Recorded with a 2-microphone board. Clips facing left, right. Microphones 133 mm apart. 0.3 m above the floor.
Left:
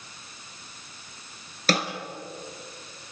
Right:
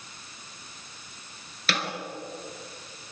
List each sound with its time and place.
1.7 s a snare drum: 40° left (ahead or behind), 3 m